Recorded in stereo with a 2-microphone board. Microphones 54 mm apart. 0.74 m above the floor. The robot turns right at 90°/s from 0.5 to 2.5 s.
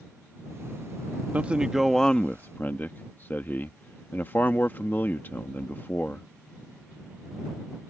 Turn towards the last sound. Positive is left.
turn(degrees=60)